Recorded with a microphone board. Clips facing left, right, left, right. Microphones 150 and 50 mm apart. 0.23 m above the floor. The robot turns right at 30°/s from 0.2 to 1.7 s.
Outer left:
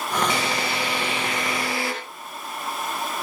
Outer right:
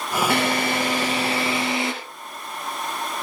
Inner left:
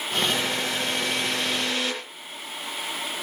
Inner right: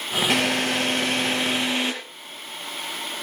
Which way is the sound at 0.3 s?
60° right.